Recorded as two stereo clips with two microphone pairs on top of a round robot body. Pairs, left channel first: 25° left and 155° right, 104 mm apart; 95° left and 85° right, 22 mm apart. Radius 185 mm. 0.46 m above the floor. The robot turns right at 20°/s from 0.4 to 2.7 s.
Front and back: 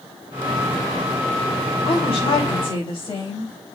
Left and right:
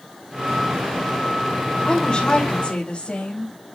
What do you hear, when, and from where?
1.9 s a woman speaking: 55° left, 4 m; by 3.5 s 70° left, 4 m